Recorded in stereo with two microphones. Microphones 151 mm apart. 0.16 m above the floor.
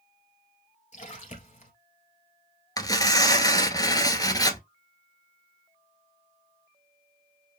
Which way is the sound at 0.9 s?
55° left (ahead or behind).